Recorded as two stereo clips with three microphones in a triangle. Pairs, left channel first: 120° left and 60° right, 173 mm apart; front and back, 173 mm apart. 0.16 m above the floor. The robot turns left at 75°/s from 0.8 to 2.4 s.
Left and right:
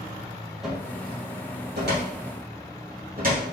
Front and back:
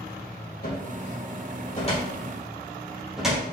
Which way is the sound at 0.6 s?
30° left.